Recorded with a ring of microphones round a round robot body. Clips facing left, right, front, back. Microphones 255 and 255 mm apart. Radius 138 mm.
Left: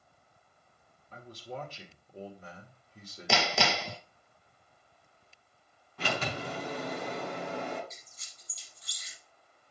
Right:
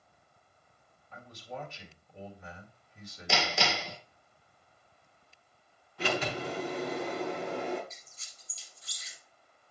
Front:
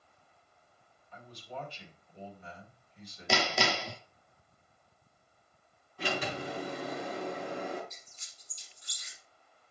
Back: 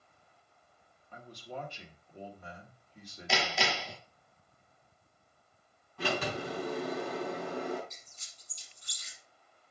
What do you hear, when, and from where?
1.1 s a man speaking: 140° left, 2.5 m
3.3 s hammering: 50° left, 0.6 m
6.0 s a sliding door: 130° left, 6 m
7.9 s a squeak: 140° left, 4.5 m